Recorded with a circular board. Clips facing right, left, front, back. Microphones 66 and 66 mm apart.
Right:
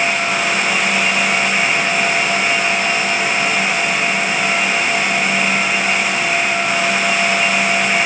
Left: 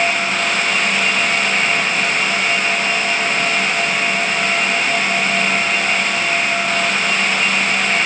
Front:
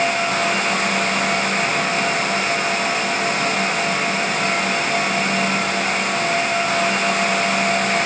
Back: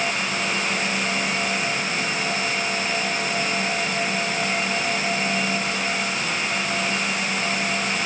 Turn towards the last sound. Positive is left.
No sound to turn to.